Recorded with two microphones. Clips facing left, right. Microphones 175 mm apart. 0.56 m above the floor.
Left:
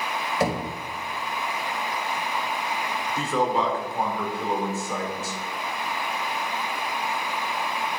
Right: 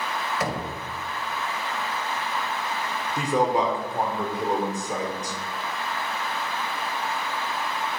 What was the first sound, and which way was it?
Knocking, 30° left (ahead or behind).